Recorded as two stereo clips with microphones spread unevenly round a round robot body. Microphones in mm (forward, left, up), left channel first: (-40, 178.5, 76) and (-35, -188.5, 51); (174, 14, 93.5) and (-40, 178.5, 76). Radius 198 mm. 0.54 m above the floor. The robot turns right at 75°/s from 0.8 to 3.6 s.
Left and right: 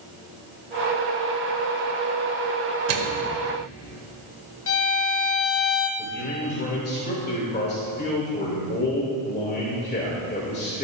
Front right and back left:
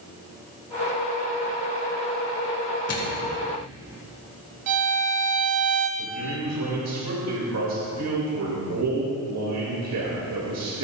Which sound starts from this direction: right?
A microwave, at 2.9 s.